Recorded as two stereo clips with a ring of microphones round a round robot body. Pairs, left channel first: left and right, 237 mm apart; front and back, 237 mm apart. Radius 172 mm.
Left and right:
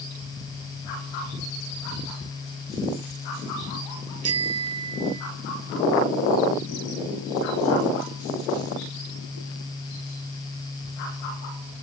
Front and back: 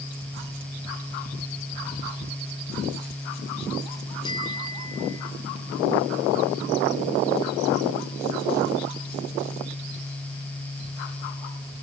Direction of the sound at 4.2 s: 80° right.